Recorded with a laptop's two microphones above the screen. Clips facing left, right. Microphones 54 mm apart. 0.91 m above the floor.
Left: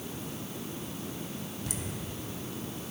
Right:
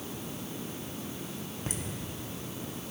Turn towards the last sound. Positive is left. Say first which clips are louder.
# right 4 dB
turn(degrees=-45)  # may be behind; listen again after turning